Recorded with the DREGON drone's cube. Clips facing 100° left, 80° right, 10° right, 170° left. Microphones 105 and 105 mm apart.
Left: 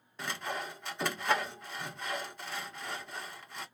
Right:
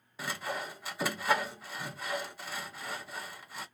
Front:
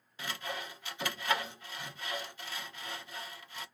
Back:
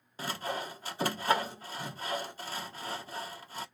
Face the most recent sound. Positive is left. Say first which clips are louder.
# right 1 dB, back 5 dB
turn(degrees=-165)